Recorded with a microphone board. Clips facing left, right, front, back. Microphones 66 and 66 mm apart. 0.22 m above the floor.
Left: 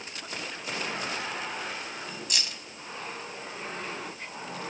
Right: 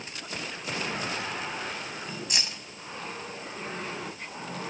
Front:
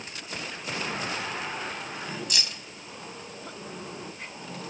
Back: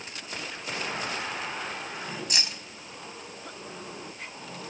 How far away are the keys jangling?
About 0.8 m.